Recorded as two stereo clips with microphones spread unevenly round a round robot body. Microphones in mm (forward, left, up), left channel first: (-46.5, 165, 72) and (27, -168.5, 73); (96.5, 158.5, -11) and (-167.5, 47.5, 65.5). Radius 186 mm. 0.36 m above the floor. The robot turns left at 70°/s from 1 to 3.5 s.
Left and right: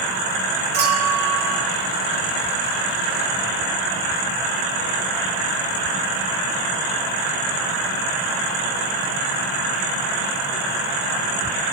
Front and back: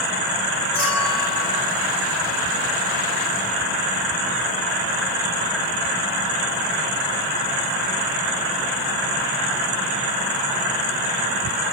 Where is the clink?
60° right, 5 m; by 1.6 s 100° right, 5 m.